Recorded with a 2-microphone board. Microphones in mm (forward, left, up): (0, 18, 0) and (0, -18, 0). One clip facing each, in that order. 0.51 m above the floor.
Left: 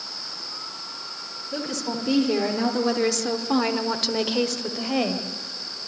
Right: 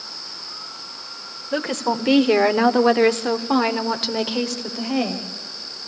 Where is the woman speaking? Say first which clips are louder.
Right 7 dB; 50° right (ahead or behind), 2 m; by 5.3 s 5° left (ahead or behind), 3 m.